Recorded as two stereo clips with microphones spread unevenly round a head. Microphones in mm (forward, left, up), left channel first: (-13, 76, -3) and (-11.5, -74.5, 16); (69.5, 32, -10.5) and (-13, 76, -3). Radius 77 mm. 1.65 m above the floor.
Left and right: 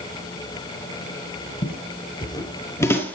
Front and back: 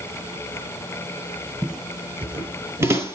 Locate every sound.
1.6 s footsteps: 80° left, 1.8 m; by 3.1 s 170° left, 2.0 m